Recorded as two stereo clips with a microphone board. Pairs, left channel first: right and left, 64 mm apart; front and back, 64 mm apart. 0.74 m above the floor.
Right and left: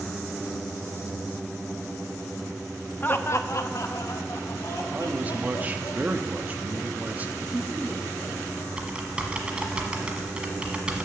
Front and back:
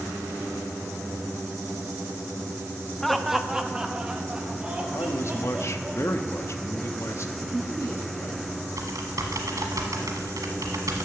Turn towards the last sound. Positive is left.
turn(degrees=160)